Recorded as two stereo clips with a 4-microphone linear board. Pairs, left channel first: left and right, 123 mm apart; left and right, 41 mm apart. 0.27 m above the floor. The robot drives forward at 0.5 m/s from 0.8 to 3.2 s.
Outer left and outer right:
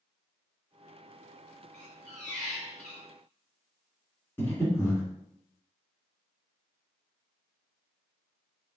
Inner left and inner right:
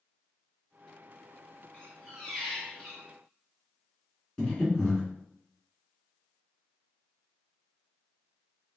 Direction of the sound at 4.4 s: 20° left (ahead or behind).